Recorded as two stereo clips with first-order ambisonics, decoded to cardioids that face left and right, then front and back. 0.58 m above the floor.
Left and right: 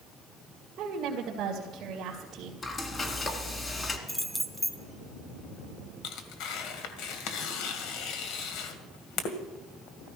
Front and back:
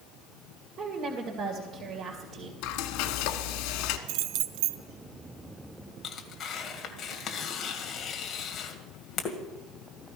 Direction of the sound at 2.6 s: 20° left.